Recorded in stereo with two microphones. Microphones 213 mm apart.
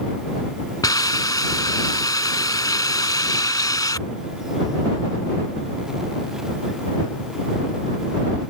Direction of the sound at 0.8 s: 20° left (ahead or behind).